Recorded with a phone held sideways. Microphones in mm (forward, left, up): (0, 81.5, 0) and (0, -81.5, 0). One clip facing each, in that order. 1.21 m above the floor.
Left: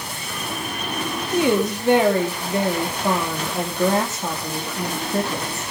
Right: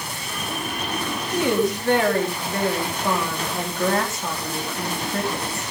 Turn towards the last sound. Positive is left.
turn(degrees=20)  # may be behind; listen again after turning